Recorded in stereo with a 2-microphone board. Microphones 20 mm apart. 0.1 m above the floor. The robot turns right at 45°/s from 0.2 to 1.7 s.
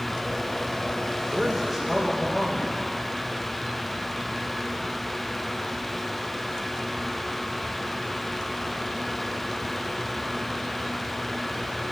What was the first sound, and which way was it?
A man speaking, 5° left (ahead or behind).